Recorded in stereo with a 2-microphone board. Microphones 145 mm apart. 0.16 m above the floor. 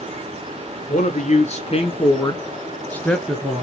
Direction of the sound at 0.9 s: 55° left (ahead or behind).